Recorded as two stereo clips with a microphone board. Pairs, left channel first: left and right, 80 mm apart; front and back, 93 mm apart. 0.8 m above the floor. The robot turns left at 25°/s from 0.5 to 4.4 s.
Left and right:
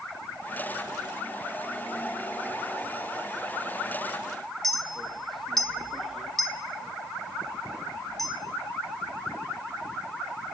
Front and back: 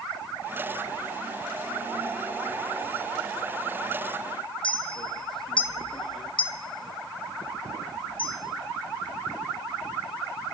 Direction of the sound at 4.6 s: Straight ahead.